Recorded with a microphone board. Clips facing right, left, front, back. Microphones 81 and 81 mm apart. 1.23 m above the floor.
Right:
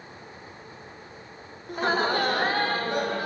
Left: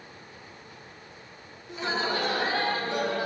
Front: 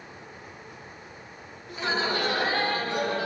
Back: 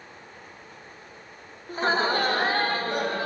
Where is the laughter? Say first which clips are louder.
Right 5 dB, back 4 dB; 130° right, 0.5 m; by 3.3 s 135° right, 1.6 m.